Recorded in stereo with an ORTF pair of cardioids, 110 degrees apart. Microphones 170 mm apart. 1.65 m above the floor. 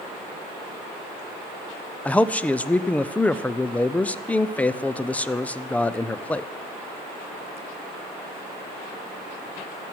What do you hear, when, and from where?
2.0 s a man speaking: 10° left, 0.5 m